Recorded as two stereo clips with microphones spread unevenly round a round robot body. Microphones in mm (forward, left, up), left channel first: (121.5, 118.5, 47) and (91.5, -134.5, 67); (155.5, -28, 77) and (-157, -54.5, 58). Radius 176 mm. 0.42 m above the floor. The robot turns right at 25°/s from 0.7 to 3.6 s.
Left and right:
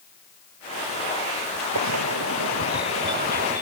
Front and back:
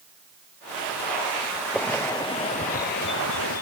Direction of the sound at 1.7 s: 85° right.